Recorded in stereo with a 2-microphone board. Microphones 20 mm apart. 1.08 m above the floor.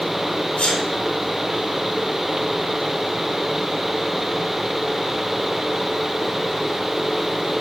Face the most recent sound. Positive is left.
turn(degrees=80)